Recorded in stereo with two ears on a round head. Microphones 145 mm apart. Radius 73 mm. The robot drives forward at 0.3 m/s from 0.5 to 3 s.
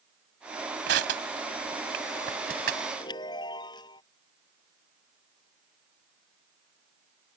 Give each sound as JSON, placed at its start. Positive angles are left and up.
{"t": 0.9, "sound": "crushing", "side_deg": -80}
{"t": 3.0, "sound": "a chime", "side_deg": 25}